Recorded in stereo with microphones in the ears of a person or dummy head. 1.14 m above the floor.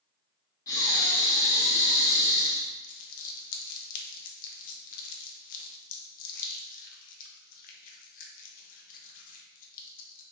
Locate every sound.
0.7 s breathing: 20° left (ahead or behind), 0.7 m
2.8 s crumpling: 45° left (ahead or behind), 0.5 m